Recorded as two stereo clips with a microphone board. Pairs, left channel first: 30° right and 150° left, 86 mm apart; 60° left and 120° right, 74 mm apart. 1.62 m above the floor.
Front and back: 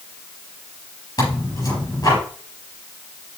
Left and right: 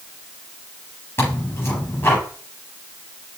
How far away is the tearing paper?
About 5.5 m.